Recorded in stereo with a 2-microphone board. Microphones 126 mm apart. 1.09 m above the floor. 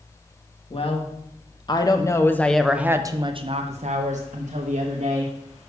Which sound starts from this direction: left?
A woman speaking, at 0.7 s.